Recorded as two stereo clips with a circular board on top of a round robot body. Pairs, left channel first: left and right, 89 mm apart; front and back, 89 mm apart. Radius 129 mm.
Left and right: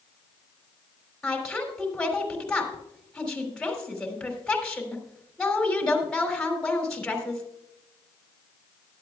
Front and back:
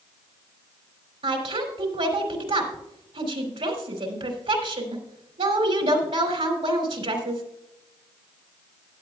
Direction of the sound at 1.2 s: 170° left.